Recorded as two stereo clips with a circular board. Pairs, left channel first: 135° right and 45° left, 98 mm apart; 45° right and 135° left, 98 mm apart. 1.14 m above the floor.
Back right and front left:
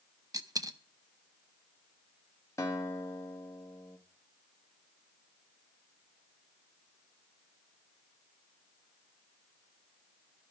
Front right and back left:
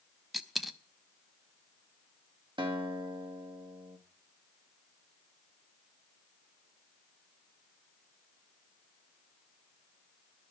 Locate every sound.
0.3 s a dropped coin: 45° left, 0.6 m
2.6 s a guitar: 165° left, 1.8 m